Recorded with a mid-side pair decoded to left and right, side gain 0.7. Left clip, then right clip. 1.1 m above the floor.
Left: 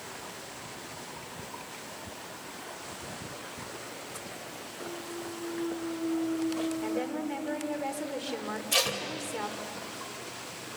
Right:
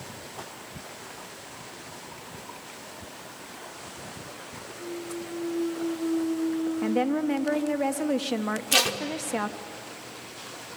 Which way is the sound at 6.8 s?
60° right.